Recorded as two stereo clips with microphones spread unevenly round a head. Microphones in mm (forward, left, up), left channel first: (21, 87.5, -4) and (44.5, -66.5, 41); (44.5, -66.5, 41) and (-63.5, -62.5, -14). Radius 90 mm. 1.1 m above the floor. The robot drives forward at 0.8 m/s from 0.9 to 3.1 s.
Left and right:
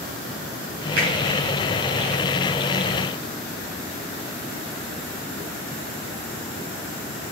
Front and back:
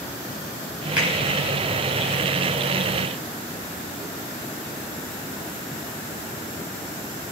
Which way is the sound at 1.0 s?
100° right.